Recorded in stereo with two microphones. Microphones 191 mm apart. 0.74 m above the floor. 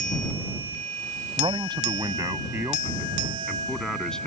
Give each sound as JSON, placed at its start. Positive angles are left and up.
{"t": 1.4, "sound": "a man speaking", "side_deg": -25}